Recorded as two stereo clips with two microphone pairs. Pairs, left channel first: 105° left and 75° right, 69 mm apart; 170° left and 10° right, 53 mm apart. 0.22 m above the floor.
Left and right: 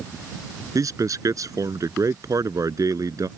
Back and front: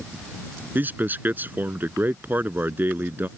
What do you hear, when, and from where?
0.8 s a man speaking: 60° right